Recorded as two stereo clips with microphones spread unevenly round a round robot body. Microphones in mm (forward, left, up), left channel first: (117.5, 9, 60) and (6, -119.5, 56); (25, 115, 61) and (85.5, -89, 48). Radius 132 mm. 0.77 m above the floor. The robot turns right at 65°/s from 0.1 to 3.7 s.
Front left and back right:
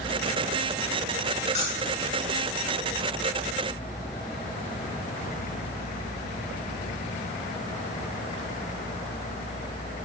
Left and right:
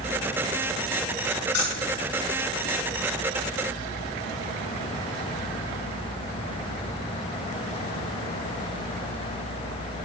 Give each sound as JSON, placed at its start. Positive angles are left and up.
{"t": 1.5, "sound": "keys jangling", "azimuth_deg": 110, "distance_m": 6.5}